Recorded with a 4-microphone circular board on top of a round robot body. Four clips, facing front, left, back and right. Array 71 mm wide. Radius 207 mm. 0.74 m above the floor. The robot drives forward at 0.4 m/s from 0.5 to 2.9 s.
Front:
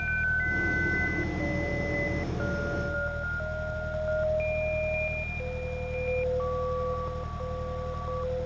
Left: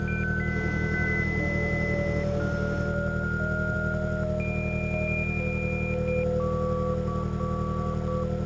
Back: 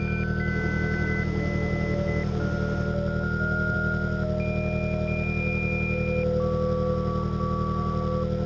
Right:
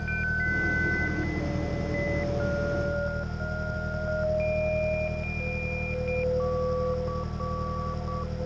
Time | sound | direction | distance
0.0 | an engine running | 155° left | ?